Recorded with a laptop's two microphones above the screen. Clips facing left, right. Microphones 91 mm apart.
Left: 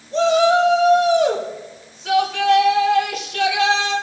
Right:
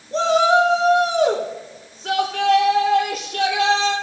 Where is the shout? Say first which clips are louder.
Left 1 dB; 45° right (ahead or behind), 2.5 m.